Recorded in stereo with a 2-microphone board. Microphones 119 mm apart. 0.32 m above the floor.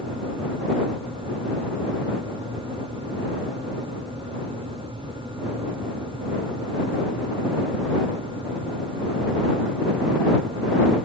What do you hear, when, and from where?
Only background noise.